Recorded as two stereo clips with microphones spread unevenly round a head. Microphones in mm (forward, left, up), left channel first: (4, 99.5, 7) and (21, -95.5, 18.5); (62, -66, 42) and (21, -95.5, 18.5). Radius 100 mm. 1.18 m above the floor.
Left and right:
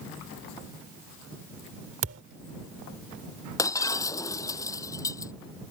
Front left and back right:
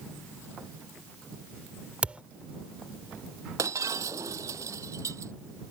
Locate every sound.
2.0 s a thud: 65° right
3.6 s breaking glass: 170° left